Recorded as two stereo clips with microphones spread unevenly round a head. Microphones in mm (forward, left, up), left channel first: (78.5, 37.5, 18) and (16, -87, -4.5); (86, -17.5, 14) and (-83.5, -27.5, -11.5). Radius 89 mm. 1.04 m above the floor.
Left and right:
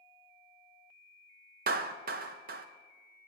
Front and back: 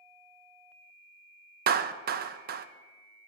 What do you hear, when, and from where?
1.7 s a clap: 145° right, 0.5 m